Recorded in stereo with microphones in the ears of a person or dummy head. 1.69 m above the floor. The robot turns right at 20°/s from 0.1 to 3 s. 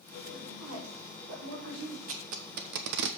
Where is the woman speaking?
80° right, 5 m; by 2.0 s 45° right, 5 m.